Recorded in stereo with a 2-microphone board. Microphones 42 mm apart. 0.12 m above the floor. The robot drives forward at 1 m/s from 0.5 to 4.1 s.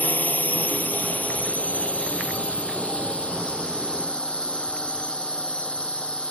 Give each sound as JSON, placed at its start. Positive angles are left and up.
{"t": 0.0, "sound": "a drone", "side_deg": 45}